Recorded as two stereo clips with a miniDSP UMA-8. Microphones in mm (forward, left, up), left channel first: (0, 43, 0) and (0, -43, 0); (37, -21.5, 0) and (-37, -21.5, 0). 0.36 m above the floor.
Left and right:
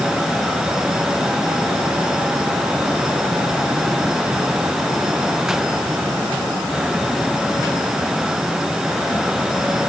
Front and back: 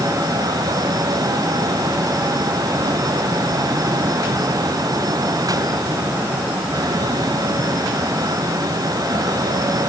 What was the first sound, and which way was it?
Only background noise.